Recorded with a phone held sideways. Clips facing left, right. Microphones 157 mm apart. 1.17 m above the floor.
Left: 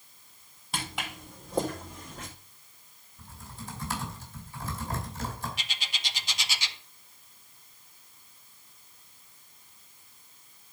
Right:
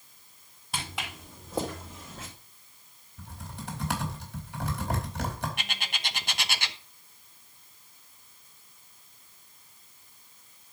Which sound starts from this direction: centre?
Footsteps, at 0.7 s.